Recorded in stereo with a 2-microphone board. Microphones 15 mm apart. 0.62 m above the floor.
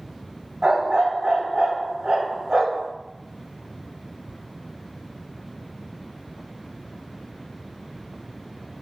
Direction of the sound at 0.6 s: 75° right (ahead or behind).